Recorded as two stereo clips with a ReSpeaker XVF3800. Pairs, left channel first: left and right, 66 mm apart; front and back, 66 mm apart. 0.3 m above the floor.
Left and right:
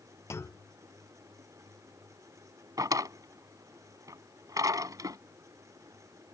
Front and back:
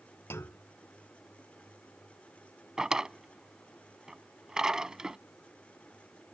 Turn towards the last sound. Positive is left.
turn(degrees=-100)